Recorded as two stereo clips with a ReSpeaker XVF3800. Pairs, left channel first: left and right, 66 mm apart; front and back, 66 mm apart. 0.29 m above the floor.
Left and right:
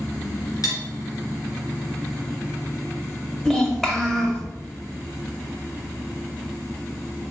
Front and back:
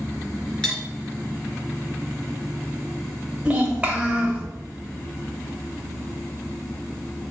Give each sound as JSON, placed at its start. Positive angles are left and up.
{"t": 0.6, "sound": "cutlery clinking", "azimuth_deg": 75, "distance_m": 2.0}
{"t": 3.5, "sound": "a child speaking", "azimuth_deg": 165, "distance_m": 1.1}